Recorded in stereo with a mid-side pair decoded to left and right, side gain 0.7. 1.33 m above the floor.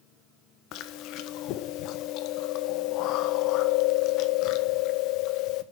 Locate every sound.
0.7 s chewing: 60° left, 1.0 m